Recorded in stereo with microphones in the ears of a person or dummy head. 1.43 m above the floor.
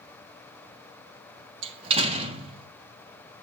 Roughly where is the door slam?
Right.